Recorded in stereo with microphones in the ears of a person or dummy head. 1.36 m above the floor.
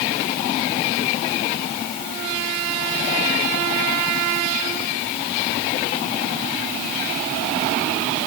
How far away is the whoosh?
No whoosh in this recording.